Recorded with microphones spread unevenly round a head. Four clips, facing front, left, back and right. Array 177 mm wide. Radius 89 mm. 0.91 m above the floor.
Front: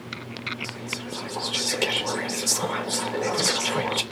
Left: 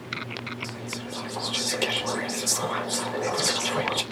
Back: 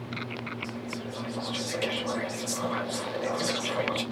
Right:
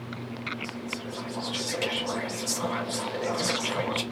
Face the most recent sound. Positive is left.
turn(degrees=15)